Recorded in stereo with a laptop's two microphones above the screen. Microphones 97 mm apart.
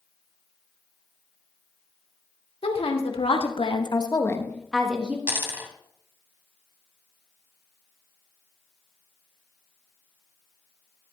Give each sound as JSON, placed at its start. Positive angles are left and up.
{"t": 2.6, "sound": "a woman speaking", "side_deg": 75, "distance_m": 2.0}
{"t": 5.3, "sound": "a dropped coin", "side_deg": -20, "distance_m": 2.0}